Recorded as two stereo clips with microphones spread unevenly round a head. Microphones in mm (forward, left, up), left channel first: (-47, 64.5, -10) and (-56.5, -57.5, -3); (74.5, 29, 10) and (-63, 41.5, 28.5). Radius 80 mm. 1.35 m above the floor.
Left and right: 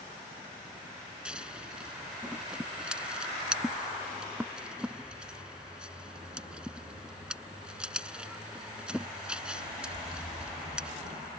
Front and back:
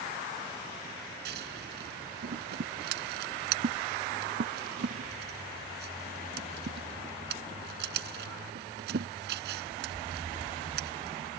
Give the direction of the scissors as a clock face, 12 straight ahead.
6 o'clock.